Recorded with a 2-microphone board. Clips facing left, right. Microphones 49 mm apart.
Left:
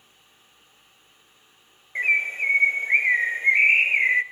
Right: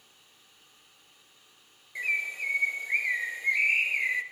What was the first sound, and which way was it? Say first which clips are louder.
A bird: left 8 dB; 40° left (ahead or behind).